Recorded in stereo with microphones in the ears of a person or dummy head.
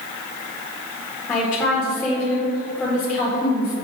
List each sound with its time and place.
1.3 s a woman speaking: 25° left (ahead or behind), 1.8 m